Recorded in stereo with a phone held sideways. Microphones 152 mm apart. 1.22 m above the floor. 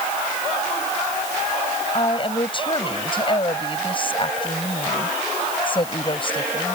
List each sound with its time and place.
1.9 s a woman speaking: 35° left (ahead or behind)